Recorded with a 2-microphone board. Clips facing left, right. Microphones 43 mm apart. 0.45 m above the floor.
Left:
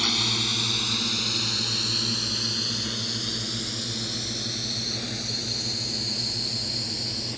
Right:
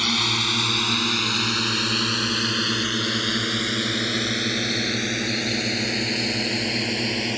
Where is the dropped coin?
No dropped coin in this recording.